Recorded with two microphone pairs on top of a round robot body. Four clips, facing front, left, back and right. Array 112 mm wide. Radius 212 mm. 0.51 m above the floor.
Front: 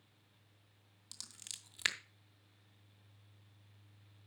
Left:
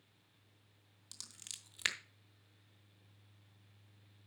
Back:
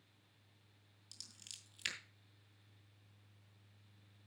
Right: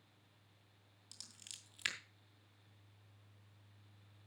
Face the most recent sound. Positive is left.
turn(degrees=40)